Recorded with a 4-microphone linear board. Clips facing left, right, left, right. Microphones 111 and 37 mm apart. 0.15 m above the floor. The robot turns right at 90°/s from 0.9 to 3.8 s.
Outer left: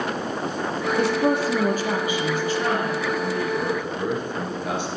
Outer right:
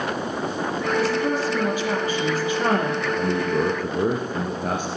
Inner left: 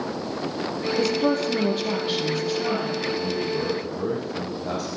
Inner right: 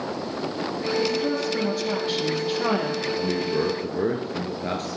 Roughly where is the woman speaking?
Ahead left.